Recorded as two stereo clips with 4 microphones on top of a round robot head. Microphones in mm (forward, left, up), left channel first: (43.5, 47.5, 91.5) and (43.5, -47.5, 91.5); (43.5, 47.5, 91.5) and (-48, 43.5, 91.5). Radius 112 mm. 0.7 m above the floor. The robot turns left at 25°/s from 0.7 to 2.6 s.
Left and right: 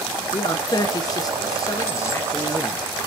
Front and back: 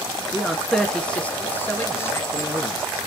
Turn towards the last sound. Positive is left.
turn(degrees=35)